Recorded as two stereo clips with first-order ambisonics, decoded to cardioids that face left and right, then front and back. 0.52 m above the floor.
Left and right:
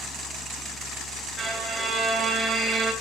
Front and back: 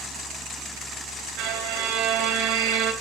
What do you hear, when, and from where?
1.4 s a violin: 165° right, 3 m